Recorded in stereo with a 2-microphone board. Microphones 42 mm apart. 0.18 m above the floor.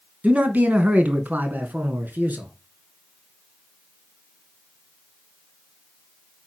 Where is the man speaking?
40° right (ahead or behind), 1.8 m; by 2.5 s 55° right (ahead or behind), 2.5 m.